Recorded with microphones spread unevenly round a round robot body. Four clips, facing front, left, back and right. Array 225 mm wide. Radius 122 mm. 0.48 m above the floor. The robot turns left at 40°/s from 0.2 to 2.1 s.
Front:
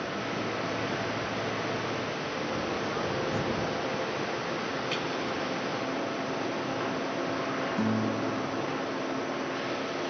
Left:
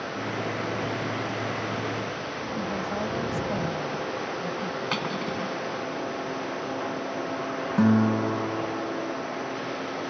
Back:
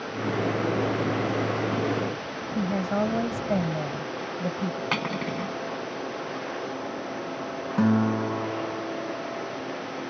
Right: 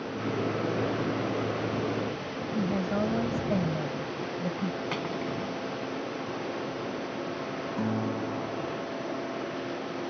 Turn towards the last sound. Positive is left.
turn(degrees=115)